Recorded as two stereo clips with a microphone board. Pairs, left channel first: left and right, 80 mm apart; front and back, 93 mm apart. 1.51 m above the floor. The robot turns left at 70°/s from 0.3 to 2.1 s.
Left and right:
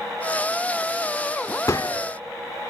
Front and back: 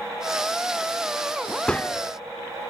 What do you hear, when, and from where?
1.7 s a gunshot: 75° left, 1.4 m; by 2.1 s 50° left, 1.4 m